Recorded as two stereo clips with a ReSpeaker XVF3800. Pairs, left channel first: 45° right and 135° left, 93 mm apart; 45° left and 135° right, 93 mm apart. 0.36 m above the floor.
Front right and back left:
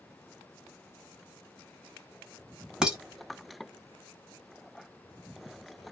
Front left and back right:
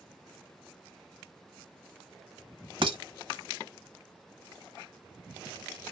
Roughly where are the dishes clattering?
Behind right.